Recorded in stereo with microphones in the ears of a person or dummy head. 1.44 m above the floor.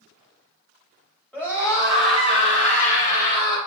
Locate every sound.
1.3 s a scream: 10° left (ahead or behind), 4 m; by 3.6 s 60° left (ahead or behind), 4 m